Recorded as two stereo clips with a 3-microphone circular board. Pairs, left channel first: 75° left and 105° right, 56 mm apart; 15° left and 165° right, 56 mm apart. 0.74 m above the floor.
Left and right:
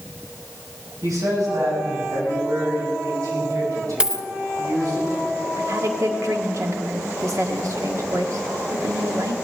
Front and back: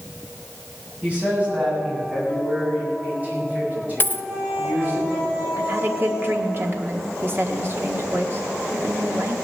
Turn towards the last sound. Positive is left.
turn(degrees=-125)